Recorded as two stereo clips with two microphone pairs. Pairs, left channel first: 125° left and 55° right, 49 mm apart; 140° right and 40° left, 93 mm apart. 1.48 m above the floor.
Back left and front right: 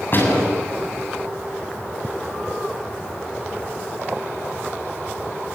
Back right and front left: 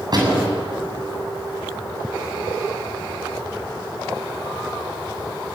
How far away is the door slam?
About 7.5 m.